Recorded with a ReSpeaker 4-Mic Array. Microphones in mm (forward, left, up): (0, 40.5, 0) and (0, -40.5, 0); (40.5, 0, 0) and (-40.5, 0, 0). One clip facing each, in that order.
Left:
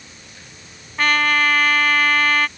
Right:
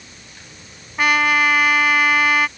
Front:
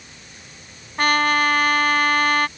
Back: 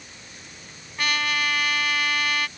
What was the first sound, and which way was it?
A trumpet, 15° right.